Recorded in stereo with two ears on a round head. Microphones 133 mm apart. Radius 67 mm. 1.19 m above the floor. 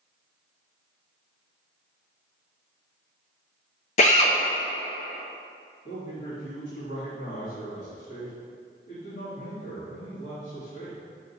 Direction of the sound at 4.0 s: 50° left (ahead or behind).